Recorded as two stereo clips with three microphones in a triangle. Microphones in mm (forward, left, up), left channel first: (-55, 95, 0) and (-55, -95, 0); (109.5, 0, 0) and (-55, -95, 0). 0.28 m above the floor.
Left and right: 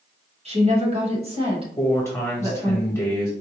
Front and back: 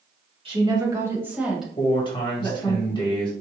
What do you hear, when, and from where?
0.5 s a woman speaking: 110° right, 1.4 m; by 2.8 s 30° right, 1.5 m
1.8 s a man speaking: 40° left, 1.0 m